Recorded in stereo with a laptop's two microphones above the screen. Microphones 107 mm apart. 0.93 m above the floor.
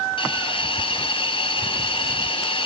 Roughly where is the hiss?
Left.